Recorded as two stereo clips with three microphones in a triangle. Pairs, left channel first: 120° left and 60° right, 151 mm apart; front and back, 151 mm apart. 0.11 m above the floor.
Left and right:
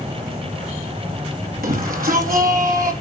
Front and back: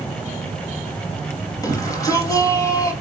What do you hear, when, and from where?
1.6 s a shout: 65° right, 3 m